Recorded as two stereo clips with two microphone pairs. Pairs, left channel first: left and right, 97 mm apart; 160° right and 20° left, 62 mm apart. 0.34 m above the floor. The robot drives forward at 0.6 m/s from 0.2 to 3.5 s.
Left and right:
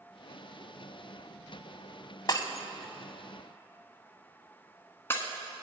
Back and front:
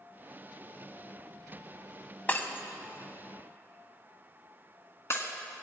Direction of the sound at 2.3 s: 140° left.